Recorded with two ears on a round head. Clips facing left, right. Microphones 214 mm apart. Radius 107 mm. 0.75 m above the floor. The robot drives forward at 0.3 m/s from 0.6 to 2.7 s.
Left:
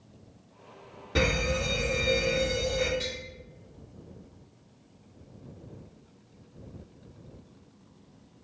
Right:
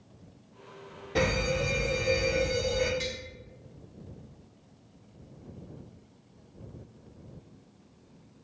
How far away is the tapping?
About 1.1 m.